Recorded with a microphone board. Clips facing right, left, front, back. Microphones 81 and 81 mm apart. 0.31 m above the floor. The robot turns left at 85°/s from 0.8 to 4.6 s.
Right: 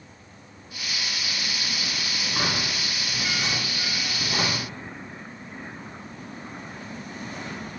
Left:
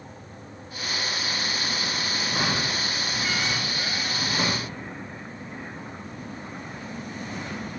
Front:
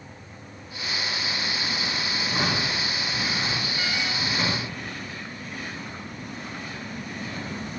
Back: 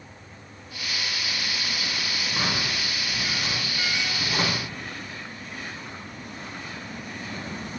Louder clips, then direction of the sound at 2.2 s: Left 1 dB, front 2 dB; 45° left.